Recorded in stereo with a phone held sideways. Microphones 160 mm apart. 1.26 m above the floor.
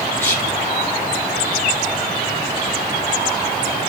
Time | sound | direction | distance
0.2 | whispering | 10° left (ahead or behind) | 7 m